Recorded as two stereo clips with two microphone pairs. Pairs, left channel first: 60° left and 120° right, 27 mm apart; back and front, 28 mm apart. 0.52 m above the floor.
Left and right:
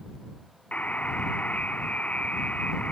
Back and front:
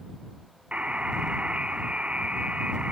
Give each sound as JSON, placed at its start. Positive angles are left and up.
{"t": 0.7, "sound": "a buzzer", "azimuth_deg": 40}